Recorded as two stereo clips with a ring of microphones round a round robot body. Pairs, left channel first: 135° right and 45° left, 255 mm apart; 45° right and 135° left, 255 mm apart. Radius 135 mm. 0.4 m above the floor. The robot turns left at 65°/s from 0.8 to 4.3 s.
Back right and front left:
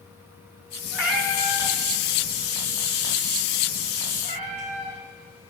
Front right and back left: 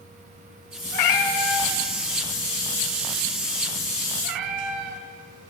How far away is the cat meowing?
About 0.6 m.